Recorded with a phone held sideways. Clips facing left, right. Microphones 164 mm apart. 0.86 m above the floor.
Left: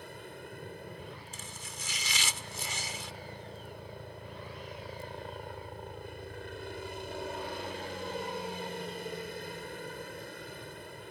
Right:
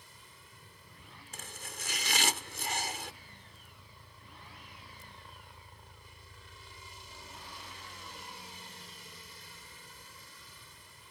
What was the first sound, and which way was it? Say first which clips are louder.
A helicopter: left 15 dB; 65° left (ahead or behind).